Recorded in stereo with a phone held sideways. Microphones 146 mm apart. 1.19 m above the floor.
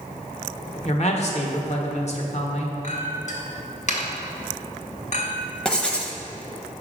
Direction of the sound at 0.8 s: 50° left (ahead or behind).